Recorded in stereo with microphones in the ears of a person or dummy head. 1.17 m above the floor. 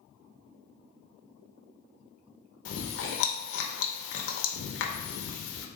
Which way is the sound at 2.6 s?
70° left (ahead or behind).